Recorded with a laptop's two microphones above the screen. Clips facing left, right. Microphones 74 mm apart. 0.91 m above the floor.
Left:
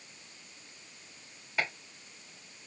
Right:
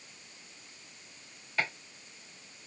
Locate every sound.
1.6 s chopping: 10° left (ahead or behind), 1.8 m